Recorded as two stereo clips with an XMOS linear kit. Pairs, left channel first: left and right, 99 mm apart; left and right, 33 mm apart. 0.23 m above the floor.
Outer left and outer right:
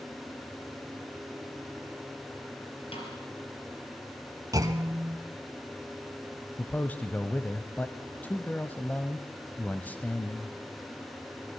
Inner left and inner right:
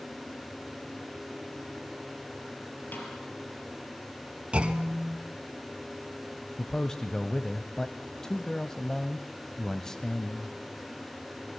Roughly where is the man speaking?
Centre.